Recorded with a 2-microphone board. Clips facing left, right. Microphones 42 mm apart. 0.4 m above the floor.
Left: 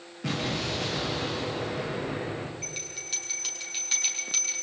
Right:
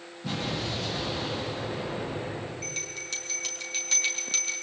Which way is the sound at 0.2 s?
80° left.